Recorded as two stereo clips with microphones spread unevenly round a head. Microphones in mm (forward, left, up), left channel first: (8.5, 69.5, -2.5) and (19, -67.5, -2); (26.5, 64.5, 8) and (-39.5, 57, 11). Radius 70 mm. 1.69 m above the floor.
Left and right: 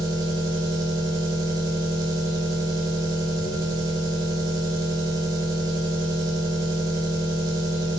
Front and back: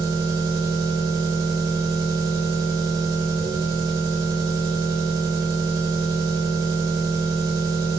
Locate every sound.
0.0 s an engine running: 150° right, 2 m